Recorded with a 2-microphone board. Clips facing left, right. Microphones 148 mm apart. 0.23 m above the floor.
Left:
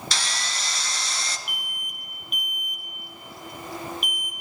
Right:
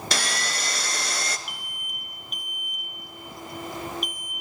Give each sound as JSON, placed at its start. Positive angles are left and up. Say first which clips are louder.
{"t": 0.1, "sound": "sawing", "louder": "right 6 dB", "side_deg": -60, "distance_m": 0.5}
{"t": 1.5, "sound": "an alarm", "louder": "left 1 dB", "side_deg": 60, "distance_m": 1.2}